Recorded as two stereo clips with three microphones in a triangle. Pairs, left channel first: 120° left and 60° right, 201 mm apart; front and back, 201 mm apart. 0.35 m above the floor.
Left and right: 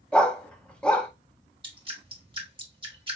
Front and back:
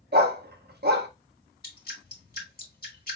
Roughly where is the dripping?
Ahead.